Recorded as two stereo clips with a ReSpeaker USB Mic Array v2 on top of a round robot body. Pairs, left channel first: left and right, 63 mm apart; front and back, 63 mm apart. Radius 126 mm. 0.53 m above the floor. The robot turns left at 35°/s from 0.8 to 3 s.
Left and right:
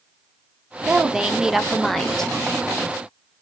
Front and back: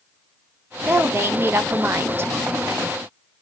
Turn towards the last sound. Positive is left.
turn(degrees=135)